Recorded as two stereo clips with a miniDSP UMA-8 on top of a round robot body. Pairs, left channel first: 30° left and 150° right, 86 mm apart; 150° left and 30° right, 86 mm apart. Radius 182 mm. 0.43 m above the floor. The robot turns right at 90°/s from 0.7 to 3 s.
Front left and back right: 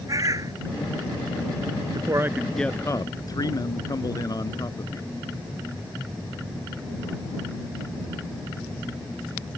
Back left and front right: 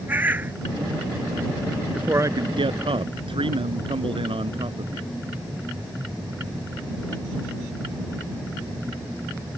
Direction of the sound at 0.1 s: 100° right.